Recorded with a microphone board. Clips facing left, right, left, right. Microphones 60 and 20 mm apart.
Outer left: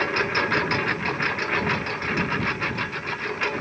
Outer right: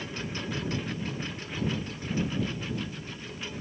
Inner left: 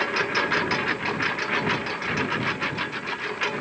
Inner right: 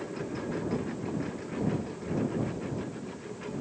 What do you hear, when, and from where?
0.0 s a lawn mower: 75° left (ahead or behind)